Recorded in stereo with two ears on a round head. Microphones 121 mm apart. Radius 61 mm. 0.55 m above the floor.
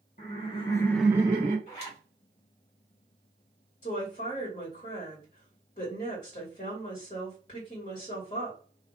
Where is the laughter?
55° left (ahead or behind), 1.2 m; by 1.6 s 50° right (ahead or behind), 0.9 m.